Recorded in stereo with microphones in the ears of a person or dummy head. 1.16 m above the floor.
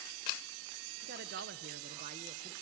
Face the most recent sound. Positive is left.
turn(degrees=-25)  # may be behind; listen again after turning